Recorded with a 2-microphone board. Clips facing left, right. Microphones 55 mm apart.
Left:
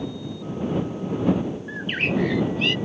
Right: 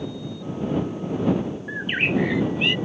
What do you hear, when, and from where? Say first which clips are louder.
1.7 s a bird: right 3 dB; 15° right (ahead or behind)